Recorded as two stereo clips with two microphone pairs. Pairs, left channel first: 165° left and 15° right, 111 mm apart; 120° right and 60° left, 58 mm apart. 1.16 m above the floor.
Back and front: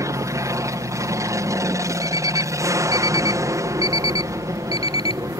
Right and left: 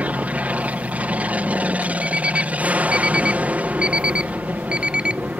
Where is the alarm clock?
130° left.